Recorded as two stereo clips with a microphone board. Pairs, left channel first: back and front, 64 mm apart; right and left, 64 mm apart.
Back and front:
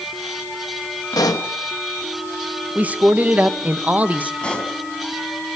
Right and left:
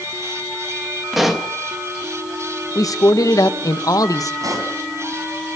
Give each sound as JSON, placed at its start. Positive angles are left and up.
{"t": 1.1, "sound": "a pop", "azimuth_deg": 180, "distance_m": 1.9}
{"t": 2.8, "sound": "a man speaking", "azimuth_deg": -65, "distance_m": 1.4}
{"t": 4.4, "sound": "a pop", "azimuth_deg": 110, "distance_m": 4.0}